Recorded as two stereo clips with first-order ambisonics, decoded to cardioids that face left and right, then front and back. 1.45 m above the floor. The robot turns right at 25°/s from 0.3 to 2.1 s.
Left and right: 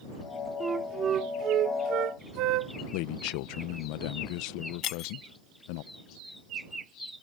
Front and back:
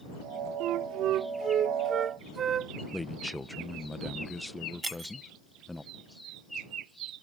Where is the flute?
155° right; by 2.8 s 120° right.